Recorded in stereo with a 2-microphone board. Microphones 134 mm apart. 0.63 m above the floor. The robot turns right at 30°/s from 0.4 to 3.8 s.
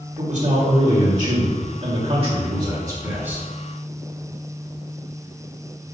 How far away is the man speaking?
About 2.5 m.